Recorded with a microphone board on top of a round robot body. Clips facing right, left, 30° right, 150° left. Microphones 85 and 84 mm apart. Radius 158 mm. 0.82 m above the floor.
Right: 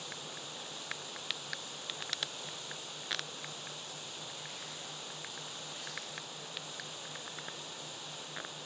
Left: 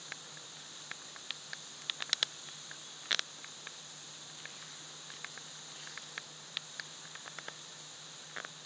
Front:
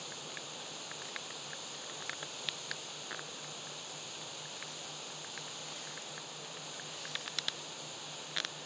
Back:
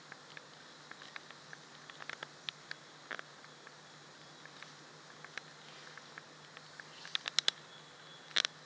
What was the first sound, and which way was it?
Running water, 50° right.